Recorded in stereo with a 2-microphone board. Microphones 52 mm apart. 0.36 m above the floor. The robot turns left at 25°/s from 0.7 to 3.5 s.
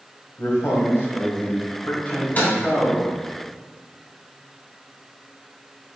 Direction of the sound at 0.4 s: 75° left.